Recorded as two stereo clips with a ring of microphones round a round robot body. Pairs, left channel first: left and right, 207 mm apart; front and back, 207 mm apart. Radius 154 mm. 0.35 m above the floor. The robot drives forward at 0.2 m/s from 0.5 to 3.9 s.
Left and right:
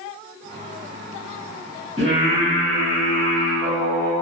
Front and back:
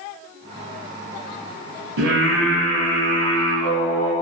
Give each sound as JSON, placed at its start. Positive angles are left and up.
{"t": 2.0, "sound": "singing", "azimuth_deg": 160, "distance_m": 1.2}